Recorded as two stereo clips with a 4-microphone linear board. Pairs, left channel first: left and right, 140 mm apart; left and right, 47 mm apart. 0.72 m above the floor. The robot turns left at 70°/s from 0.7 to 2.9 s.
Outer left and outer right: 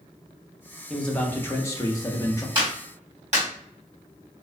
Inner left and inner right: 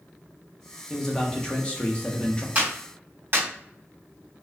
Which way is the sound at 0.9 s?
5° left (ahead or behind).